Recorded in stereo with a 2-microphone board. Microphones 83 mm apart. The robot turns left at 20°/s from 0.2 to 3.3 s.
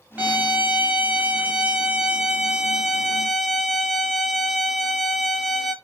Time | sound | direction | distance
0.2 | a violin | 20° right (ahead or behind) | 0.7 m